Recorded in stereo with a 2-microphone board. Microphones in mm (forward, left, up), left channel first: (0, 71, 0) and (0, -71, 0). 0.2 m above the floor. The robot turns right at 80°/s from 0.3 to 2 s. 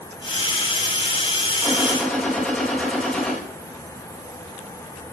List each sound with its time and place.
1.6 s a gunshot: 20° right, 6 m; by 3.4 s 10° left, 6 m